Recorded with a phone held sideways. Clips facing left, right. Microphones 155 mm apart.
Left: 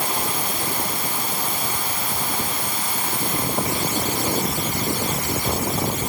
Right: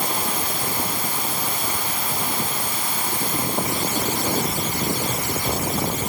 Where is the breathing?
I don't hear breathing.